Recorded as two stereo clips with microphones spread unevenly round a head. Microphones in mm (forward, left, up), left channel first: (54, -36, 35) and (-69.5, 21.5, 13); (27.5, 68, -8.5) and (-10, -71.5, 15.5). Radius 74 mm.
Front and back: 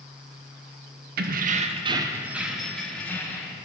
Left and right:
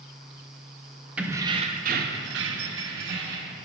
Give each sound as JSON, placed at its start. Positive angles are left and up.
{"t": 1.2, "sound": "keys jangling", "azimuth_deg": 170, "distance_m": 0.6}